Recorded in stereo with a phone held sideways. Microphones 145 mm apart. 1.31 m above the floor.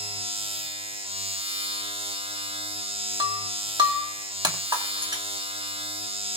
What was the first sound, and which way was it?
A machine running, 40° right (ahead or behind).